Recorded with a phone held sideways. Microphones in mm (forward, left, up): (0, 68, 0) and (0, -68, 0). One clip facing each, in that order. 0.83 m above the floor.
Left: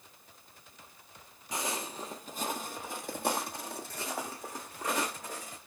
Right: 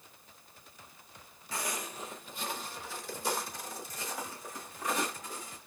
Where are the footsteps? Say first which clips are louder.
Left 2 dB; 20° left (ahead or behind), 0.9 m; by 5.6 s 70° left (ahead or behind), 2.5 m.